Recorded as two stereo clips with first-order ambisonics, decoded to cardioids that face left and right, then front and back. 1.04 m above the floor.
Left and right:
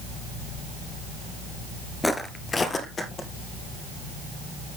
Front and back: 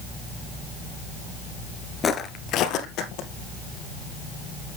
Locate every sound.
2.0 s footsteps: 15° left, 1.0 m; by 3.3 s 25° left, 2 m